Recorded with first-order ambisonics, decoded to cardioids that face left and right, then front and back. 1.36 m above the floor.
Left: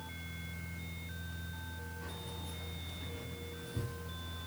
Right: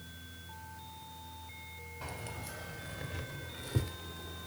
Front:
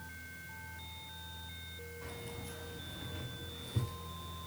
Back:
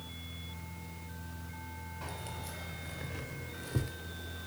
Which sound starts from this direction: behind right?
Keys jangling, at 2.0 s.